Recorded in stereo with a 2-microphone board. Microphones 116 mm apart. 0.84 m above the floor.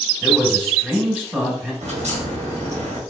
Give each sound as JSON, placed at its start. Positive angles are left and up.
{"t": 0.2, "sound": "a man speaking", "side_deg": -15, "distance_m": 1.8}
{"t": 1.8, "sound": "a crack", "side_deg": -75, "distance_m": 1.9}